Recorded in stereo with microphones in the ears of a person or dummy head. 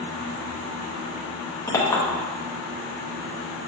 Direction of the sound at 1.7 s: 20° left (ahead or behind).